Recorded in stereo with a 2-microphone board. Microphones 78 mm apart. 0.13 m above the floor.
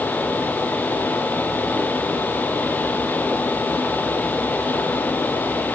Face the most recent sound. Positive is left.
No sound to turn to.